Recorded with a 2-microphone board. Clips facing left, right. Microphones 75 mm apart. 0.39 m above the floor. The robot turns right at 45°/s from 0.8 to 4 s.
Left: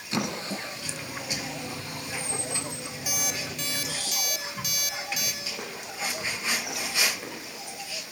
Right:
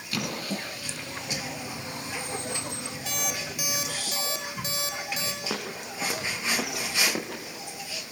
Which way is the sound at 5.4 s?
80° right.